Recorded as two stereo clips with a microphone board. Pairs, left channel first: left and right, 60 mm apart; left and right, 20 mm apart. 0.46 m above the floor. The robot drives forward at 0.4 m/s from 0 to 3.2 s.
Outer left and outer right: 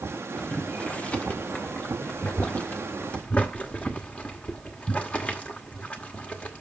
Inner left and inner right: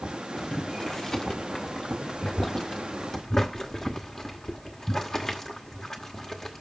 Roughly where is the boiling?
Left.